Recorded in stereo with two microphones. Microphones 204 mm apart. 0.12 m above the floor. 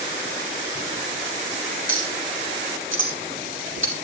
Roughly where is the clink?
Right.